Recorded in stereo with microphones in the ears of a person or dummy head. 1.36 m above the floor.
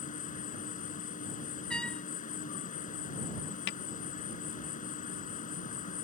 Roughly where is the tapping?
Left.